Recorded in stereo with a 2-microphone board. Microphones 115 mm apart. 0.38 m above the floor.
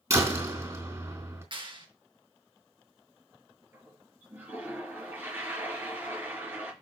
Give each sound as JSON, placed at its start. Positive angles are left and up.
{"t": 0.1, "sound": "a door slam", "side_deg": -30, "distance_m": 3.5}
{"t": 1.5, "sound": "a clap", "side_deg": -45, "distance_m": 4.5}
{"t": 3.7, "sound": "a toilet flushing", "side_deg": -15, "distance_m": 4.0}